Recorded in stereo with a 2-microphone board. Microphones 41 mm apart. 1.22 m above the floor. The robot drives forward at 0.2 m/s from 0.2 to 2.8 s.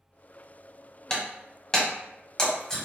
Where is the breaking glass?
15° left (ahead or behind), 1.3 m.